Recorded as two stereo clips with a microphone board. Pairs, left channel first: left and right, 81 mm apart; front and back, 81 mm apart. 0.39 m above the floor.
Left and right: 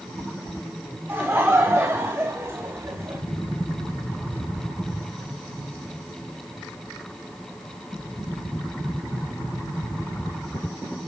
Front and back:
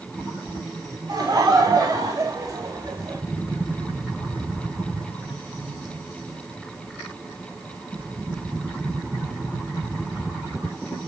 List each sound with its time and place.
1.1 s laughter: 150° right, 4 m; by 3.2 s 140° right, 3 m